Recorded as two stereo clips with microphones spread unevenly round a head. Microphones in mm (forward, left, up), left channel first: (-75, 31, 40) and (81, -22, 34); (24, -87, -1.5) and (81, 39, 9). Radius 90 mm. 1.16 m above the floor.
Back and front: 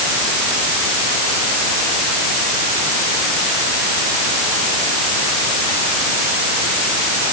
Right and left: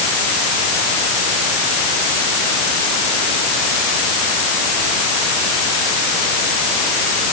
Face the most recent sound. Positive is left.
No sound to turn to.